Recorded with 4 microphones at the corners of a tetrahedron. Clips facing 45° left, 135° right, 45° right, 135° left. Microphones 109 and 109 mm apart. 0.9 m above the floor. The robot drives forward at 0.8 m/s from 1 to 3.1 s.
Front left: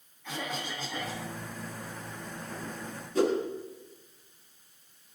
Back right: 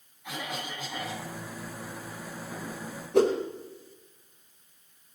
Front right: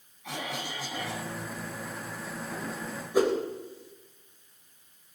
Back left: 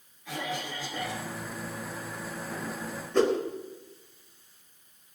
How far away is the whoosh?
About 4.5 m.